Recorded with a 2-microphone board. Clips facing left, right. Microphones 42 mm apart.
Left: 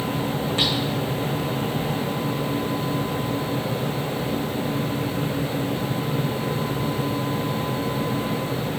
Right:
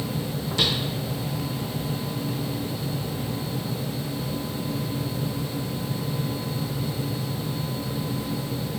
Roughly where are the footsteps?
Left.